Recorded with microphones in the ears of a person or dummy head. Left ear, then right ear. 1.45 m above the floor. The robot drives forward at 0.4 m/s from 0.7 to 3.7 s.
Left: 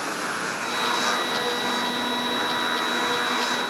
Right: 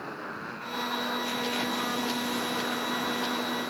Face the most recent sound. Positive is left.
turn(degrees=85)